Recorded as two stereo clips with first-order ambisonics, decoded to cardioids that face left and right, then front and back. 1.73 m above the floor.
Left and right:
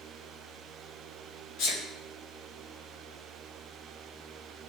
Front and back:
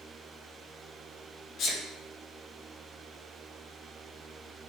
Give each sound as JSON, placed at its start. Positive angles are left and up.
{"t": 1.6, "sound": "a sneeze", "azimuth_deg": 50, "distance_m": 2.5}